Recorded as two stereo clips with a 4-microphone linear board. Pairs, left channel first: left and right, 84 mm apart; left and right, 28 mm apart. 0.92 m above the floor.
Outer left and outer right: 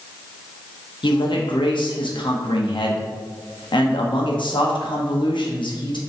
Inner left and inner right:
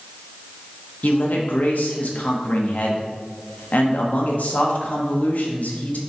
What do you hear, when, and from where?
1.0 s a man speaking: 75° left (ahead or behind), 0.9 m